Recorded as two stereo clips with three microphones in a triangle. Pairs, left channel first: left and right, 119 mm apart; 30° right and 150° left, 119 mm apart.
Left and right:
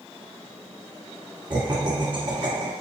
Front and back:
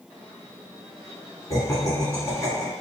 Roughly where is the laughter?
Right.